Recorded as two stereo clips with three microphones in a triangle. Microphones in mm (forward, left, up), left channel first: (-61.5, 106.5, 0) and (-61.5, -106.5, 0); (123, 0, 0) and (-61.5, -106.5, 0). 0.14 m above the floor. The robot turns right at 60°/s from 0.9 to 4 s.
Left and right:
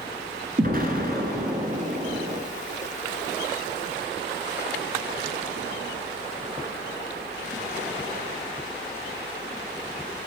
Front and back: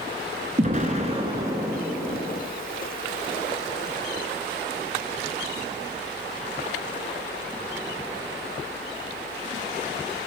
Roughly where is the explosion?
Right.